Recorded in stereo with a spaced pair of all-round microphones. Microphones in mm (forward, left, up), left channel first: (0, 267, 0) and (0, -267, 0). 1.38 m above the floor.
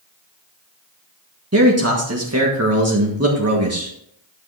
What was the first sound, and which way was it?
A man speaking, 25° right (ahead or behind).